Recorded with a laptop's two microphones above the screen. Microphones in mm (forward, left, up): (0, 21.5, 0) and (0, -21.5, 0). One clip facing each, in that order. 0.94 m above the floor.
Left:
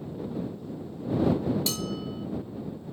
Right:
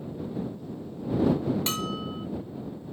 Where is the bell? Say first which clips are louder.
Right 1 dB; 45° right (ahead or behind).